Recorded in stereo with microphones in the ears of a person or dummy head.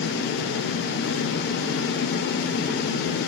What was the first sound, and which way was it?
Only background noise.